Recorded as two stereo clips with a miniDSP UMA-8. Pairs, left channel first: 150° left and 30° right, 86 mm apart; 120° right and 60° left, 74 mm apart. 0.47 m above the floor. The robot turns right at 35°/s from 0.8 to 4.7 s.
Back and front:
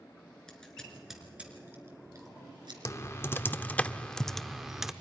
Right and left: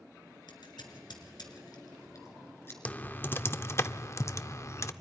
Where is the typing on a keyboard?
Straight behind, 0.6 m; by 4.9 s 115° right, 0.6 m.